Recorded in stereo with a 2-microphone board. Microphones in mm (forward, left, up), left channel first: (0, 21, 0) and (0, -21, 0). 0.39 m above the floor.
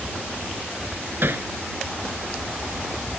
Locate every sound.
1.2 s hammering: 55° right (ahead or behind)